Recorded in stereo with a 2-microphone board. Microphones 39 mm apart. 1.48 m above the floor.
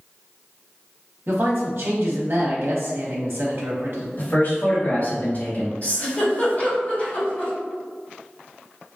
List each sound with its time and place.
1.3 s a man speaking: 65° right (ahead or behind), 0.8 m
4.2 s a man speaking: 50° left (ahead or behind), 1.9 m
5.8 s a giggle: 45° left (ahead or behind), 1.8 m